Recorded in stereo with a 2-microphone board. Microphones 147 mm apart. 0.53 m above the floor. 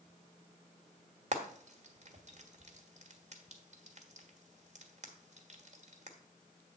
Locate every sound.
1.3 s frying: 50° right (ahead or behind), 1.2 m